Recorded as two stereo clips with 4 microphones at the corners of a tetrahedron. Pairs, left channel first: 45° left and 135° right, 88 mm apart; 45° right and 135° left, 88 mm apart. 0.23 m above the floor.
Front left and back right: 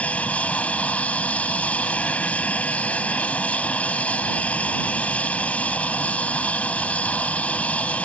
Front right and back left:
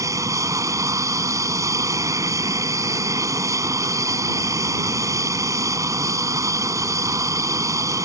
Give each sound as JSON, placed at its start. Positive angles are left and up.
{"t": 0.0, "sound": "an aircraft", "azimuth_deg": 110}